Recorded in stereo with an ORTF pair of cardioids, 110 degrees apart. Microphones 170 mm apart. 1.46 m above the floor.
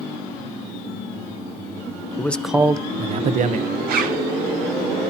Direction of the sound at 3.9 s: 65° right.